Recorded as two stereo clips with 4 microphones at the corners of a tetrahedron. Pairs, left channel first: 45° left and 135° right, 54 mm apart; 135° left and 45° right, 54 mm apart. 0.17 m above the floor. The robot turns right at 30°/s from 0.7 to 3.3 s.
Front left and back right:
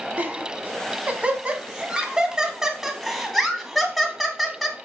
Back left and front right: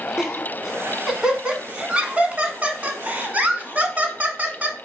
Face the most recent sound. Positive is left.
turn(degrees=-45)